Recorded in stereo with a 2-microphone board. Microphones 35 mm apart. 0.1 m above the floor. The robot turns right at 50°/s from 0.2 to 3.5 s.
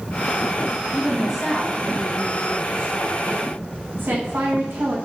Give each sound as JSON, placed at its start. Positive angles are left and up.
{"t": 0.9, "sound": "a woman speaking", "azimuth_deg": 165, "distance_m": 6.5}